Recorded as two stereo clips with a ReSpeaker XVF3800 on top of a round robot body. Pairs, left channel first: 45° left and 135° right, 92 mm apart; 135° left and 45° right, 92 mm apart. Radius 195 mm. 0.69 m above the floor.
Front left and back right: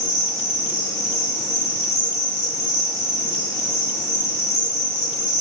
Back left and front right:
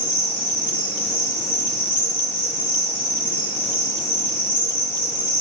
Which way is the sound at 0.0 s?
105° left.